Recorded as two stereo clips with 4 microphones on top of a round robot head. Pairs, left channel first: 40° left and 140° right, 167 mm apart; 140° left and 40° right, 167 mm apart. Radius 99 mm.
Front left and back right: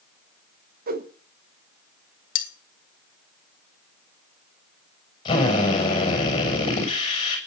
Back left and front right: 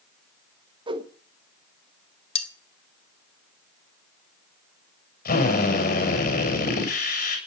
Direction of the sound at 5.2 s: 105° left.